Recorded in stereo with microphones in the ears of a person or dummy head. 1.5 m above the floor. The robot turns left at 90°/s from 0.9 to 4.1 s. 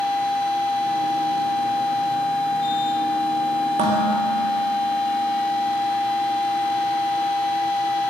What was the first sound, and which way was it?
Dishes clattering, 30° right (ahead or behind).